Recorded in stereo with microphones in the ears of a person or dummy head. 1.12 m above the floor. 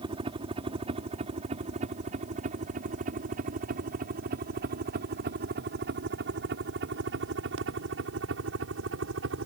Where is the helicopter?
25° right (ahead or behind); by 9.5 s 65° right (ahead or behind).